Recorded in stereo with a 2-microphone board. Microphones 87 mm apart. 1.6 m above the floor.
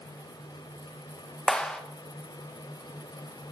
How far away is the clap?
About 1.6 m.